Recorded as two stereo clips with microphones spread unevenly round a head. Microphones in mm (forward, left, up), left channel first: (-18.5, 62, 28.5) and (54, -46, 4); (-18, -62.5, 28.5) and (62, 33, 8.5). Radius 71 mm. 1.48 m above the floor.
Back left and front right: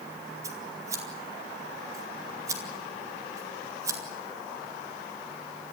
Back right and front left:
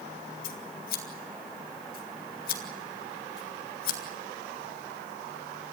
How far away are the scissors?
About 2.5 m.